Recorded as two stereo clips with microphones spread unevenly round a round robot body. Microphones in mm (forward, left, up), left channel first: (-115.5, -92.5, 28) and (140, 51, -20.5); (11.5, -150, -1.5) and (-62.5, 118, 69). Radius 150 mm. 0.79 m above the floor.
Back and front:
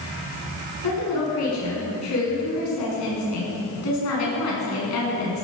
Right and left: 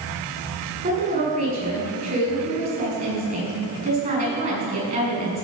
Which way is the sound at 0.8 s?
170° left.